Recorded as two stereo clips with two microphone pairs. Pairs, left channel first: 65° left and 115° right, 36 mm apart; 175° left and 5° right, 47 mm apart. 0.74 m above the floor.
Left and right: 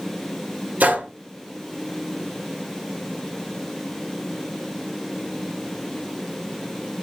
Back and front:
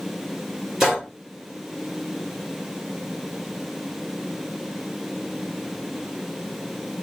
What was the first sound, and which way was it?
A gunshot, 85° right.